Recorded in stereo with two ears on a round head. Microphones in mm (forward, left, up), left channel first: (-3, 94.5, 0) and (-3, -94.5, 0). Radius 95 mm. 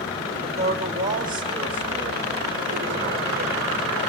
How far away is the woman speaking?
About 4.5 m.